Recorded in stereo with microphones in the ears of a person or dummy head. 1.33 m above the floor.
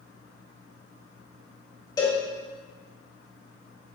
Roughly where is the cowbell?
Centre.